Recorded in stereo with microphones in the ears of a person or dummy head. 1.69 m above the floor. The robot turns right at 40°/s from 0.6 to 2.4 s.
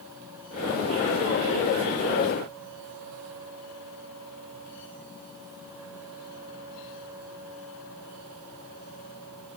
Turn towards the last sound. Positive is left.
No sound to turn to.